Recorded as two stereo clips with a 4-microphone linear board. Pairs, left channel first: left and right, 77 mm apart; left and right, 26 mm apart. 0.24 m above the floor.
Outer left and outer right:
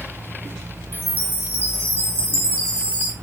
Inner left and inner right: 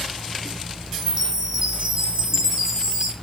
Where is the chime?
25° right (ahead or behind), 3 m.